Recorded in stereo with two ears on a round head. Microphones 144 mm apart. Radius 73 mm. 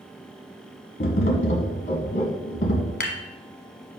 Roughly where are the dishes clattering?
Left.